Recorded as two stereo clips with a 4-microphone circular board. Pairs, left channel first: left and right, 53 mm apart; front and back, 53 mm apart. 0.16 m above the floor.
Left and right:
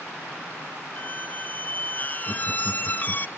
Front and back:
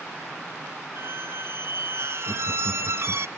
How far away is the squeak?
About 0.6 m.